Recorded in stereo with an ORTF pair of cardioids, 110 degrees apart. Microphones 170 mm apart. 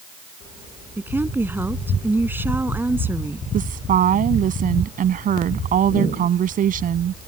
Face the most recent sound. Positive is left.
turn(degrees=-55)